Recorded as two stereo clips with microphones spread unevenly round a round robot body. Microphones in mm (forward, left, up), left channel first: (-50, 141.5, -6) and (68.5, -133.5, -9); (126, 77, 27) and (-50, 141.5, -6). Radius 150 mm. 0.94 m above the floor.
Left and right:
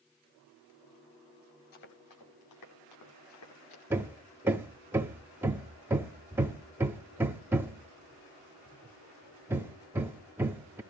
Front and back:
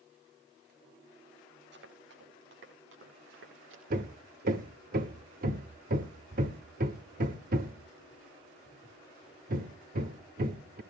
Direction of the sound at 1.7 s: 135° left.